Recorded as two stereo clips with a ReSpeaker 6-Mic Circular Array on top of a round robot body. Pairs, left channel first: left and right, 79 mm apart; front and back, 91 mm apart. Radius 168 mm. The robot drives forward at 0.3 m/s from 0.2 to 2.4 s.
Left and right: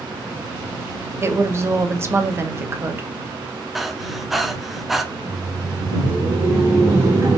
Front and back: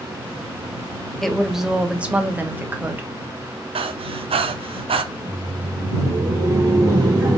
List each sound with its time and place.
1.2 s a woman speaking: 85° right, 1.0 m; by 3.1 s 125° right, 1.0 m
3.8 s breathing: straight behind, 0.5 m
5.1 s laughter: 135° right, 1.6 m